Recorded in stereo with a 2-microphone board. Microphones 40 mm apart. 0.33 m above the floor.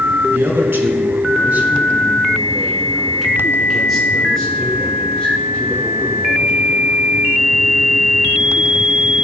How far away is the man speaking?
About 3.5 m.